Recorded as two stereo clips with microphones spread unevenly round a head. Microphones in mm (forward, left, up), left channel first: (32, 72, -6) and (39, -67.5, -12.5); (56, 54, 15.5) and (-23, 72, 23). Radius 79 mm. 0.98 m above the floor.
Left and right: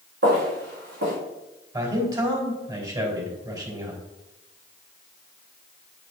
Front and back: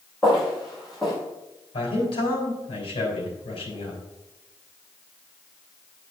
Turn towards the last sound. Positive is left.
turn(degrees=-20)